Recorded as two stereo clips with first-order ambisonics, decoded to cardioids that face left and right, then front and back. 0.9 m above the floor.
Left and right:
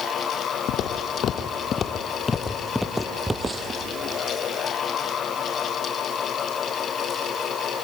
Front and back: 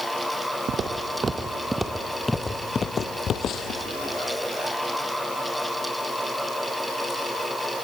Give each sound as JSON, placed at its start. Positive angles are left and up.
{"t": 0.7, "sound": "footsteps", "azimuth_deg": 125, "distance_m": 1.3}